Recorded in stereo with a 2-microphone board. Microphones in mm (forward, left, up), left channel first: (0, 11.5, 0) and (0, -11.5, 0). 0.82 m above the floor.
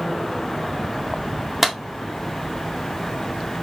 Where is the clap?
15° right (ahead or behind), 1.8 m.